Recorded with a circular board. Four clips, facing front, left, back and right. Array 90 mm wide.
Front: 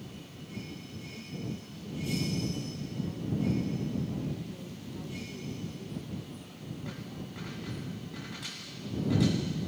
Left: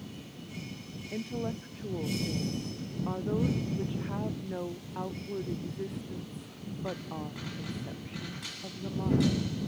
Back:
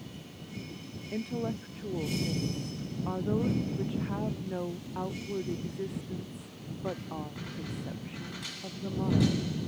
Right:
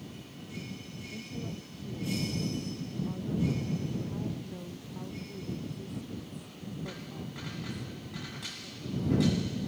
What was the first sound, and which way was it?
A woman speaking, 140° left.